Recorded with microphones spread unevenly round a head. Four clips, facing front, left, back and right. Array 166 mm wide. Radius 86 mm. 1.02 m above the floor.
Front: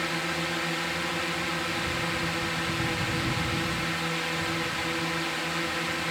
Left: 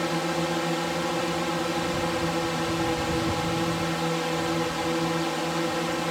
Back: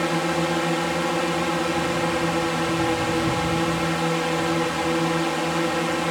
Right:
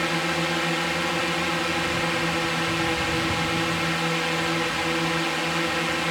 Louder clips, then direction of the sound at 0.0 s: Right 1 dB, back 9 dB; 170° left.